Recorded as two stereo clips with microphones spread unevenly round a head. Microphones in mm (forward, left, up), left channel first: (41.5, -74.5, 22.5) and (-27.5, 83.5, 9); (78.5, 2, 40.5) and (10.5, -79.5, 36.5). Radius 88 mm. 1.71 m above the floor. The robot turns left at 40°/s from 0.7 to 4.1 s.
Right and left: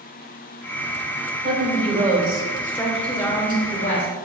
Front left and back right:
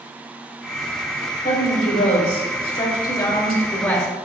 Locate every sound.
1.4 s a woman speaking: 80° left, 2 m; by 4.1 s 25° right, 2 m